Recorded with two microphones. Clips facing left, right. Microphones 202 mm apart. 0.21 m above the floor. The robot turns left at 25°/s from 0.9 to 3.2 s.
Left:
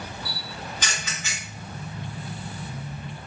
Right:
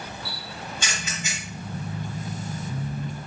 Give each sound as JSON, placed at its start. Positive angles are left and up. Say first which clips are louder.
{"t": 0.2, "sound": "a camera shutter", "louder": "even", "side_deg": -25, "distance_m": 1.7}